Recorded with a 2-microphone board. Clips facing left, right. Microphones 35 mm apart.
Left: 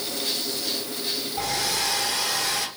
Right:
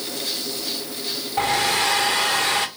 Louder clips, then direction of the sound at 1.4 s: Right 8 dB; 50° right (ahead or behind).